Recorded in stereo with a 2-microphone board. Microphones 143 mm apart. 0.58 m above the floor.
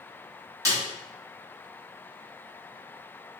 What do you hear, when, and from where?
0.7 s a snare drum: 25° right (ahead or behind), 1.2 m